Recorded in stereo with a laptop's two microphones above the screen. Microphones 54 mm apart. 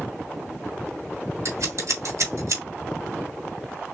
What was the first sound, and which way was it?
Scissors, 70° right (ahead or behind).